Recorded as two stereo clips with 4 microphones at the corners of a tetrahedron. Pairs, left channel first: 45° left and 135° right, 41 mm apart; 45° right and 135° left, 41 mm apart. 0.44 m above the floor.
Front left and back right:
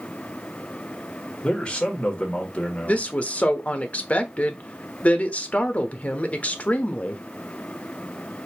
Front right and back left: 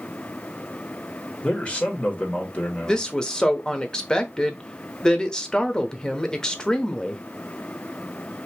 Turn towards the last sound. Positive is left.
turn(degrees=15)